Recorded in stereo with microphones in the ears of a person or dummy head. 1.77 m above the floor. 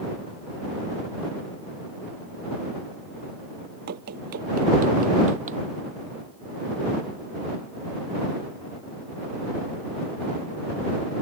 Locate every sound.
3.9 s running footsteps: 45° right (ahead or behind); by 5.6 s 35° right (ahead or behind)